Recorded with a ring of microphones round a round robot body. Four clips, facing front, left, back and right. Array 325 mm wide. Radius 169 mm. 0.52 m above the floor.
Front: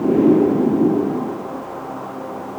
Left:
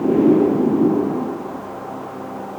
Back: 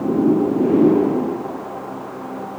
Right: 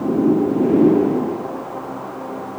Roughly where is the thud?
I don't hear a thud.